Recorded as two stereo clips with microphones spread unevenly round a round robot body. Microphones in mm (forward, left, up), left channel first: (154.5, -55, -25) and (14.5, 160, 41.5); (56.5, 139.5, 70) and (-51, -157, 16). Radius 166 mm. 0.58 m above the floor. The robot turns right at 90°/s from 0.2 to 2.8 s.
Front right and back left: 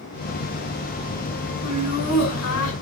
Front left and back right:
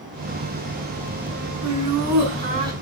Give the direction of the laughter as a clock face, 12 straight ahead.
4 o'clock.